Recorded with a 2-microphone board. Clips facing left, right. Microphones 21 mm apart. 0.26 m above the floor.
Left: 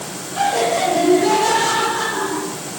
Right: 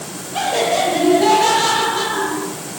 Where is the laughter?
35° right (ahead or behind), 8 m; by 2.5 s 55° right (ahead or behind), 10 m.